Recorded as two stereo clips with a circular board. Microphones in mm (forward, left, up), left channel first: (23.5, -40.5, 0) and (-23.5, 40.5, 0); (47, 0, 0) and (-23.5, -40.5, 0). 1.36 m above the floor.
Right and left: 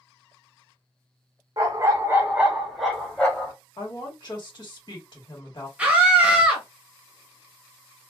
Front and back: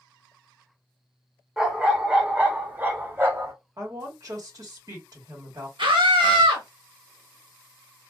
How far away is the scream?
About 1.0 m.